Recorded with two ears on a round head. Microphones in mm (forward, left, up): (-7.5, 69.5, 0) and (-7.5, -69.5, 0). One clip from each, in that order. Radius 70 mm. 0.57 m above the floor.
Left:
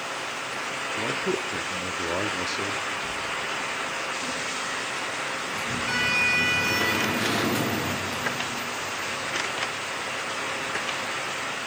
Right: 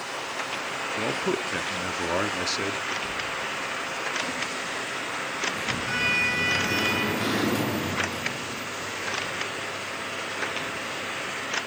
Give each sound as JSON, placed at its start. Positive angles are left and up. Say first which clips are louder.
{"t": 1.0, "sound": "a man speaking", "louder": "even", "side_deg": -25, "distance_m": 0.9}
{"t": 3.0, "sound": "a sliding door", "louder": "left 1 dB", "side_deg": 10, "distance_m": 9.5}